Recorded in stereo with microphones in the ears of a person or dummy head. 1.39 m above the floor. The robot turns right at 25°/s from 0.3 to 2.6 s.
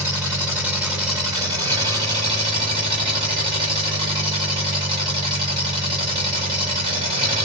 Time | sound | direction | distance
0.0 | an engine running | 5° right (ahead or behind) | 0.9 m